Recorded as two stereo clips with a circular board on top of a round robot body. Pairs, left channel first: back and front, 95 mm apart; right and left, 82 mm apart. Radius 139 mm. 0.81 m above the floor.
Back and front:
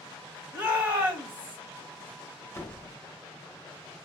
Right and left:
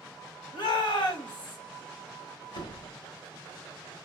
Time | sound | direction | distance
0.5 | a shout | 75° right | 5 m
2.5 | a door slam | 120° right | 1.9 m